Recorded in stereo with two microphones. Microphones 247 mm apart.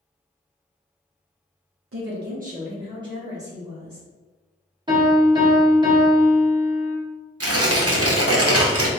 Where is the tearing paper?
65° right (ahead or behind), 0.8 m.